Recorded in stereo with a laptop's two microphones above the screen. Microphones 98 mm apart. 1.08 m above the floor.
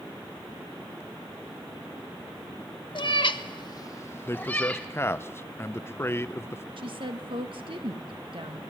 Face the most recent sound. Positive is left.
turn(degrees=-60)  # may be behind; listen again after turning